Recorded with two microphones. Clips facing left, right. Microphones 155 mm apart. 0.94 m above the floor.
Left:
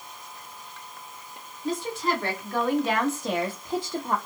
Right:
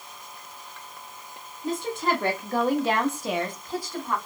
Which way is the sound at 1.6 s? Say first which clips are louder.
Right 1 dB; 60° right (ahead or behind).